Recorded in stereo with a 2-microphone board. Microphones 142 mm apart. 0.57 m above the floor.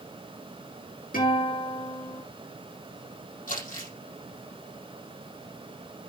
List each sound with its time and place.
1.1 s a guitar: 85° left, 5.5 m
3.5 s crumpling: 75° left (ahead or behind), 4.5 m